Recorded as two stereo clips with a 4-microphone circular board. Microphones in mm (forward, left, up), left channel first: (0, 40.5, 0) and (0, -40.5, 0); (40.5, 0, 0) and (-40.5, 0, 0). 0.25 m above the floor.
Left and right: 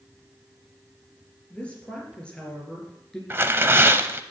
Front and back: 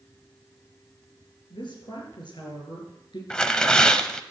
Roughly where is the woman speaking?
Ahead.